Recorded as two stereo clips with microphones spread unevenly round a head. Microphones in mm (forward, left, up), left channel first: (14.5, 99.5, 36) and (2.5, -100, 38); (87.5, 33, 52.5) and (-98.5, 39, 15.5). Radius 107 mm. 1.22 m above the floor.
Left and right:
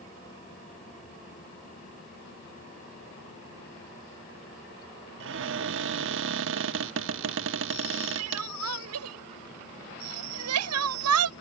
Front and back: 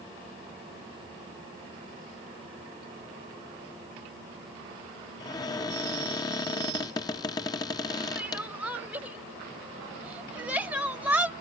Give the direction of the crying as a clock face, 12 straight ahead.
3 o'clock.